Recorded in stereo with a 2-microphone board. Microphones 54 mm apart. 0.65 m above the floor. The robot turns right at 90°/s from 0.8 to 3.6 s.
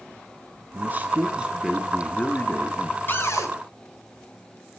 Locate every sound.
0.7 s a man speaking: 95° right, 0.7 m; by 3.0 s 100° left, 0.7 m
3.1 s a cupboard door: 40° left, 1.5 m; by 3.5 s 75° left, 1.5 m